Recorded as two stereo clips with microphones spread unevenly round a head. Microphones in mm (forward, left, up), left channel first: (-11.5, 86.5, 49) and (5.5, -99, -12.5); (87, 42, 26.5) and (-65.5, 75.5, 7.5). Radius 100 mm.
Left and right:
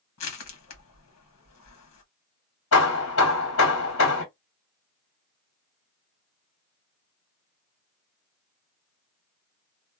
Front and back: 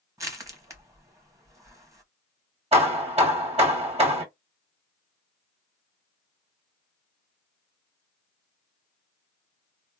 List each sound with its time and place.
0.2 s crushing: 100° left, 1.3 m
2.7 s hammering: 115° left, 1.9 m